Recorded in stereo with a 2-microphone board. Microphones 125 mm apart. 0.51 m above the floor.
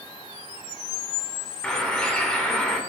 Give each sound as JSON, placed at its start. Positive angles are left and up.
{"t": 1.6, "sound": "a bird", "side_deg": 10, "distance_m": 2.0}